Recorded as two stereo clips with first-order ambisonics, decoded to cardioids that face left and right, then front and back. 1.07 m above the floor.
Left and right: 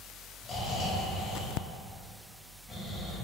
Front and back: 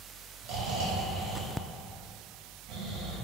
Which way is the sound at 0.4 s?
170° left.